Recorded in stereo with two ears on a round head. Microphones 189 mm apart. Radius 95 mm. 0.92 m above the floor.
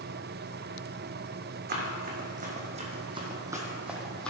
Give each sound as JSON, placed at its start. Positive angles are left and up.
{"t": 1.7, "sound": "running footsteps", "side_deg": -45, "distance_m": 2.0}